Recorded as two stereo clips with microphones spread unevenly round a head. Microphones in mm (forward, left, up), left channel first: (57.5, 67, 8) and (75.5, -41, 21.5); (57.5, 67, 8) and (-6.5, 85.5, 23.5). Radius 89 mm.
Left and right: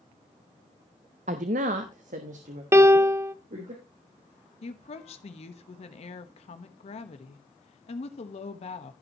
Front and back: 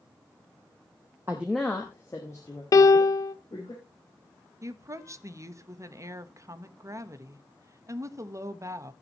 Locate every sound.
1.3 s a woman speaking: 120° right, 0.6 m; by 3.7 s 70° right, 3 m
2.7 s a piano: 10° right, 0.6 m
4.6 s a woman speaking: 115° left, 1.2 m